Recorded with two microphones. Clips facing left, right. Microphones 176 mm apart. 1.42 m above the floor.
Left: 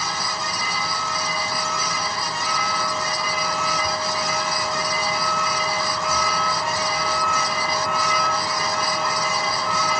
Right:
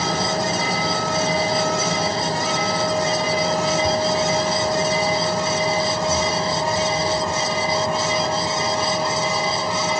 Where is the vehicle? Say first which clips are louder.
Right 8 dB; 50° right (ahead or behind); by 10.0 s 25° right (ahead or behind).